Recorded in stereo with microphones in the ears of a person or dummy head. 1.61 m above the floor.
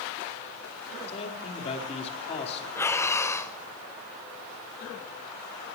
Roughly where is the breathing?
Centre.